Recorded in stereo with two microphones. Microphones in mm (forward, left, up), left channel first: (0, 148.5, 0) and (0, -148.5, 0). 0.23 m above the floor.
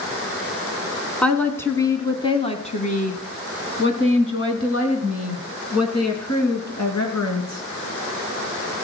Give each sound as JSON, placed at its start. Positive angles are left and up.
{"t": 1.2, "sound": "a woman speaking", "side_deg": 5, "distance_m": 2.0}